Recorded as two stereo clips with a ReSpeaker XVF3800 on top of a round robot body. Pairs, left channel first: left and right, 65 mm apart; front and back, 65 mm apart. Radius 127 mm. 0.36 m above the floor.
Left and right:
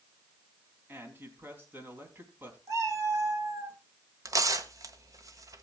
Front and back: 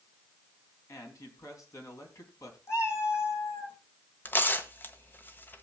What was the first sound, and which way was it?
A man speaking, 35° right.